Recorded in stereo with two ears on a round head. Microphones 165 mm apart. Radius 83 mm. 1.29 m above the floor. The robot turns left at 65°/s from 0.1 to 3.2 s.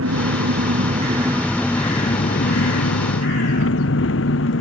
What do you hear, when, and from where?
0.0 s an engine running: 85° right; by 4.6 s 75° left